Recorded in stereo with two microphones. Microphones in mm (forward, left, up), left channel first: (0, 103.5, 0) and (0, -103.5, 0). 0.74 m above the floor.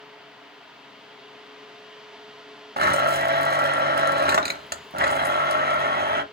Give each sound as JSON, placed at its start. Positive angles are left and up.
{"t": 2.8, "sound": "a blender", "side_deg": -50, "distance_m": 0.8}